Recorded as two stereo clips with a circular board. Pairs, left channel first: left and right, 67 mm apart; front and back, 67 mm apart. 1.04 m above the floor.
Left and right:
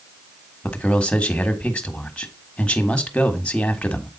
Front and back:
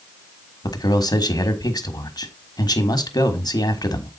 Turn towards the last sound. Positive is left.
turn(degrees=15)